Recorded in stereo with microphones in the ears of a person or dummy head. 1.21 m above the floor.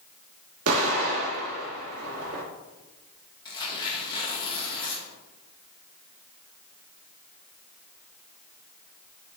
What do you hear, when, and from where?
0.7 s an explosion: 80° right, 1.9 m
3.5 s tearing paper: 20° left (ahead or behind), 1.2 m